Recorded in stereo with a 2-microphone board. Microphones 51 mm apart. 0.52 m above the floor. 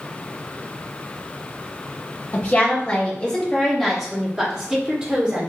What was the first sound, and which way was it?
A woman speaking, 30° left (ahead or behind).